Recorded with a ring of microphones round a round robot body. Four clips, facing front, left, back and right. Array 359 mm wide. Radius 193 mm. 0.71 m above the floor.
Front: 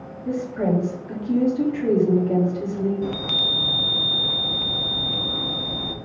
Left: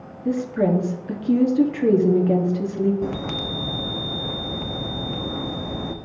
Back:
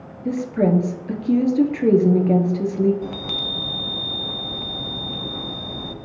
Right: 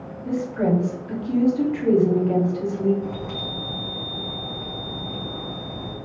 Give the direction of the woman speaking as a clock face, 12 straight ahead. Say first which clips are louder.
Left 2 dB, back 4 dB; 7 o'clock.